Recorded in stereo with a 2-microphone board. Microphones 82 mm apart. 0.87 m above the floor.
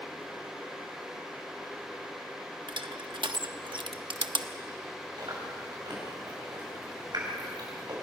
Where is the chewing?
60° right (ahead or behind), 6.5 m.